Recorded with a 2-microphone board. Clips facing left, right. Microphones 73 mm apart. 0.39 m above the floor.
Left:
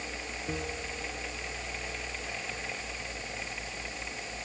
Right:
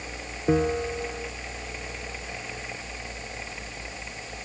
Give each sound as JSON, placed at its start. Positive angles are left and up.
{"t": 0.5, "sound": "a bell", "side_deg": -45}